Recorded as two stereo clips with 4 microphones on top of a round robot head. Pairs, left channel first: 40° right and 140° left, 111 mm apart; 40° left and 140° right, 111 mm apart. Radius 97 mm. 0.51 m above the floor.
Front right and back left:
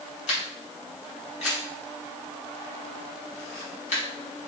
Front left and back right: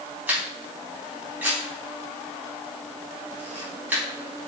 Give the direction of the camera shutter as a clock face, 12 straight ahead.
2 o'clock.